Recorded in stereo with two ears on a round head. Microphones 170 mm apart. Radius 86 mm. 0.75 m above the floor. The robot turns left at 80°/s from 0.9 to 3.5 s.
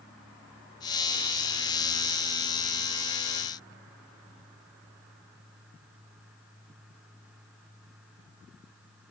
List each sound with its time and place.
Only background noise.